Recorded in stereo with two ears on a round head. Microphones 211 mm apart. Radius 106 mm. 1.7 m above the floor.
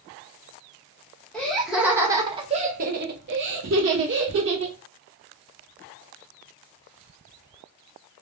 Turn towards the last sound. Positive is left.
turn(degrees=-55)  # may be behind; listen again after turning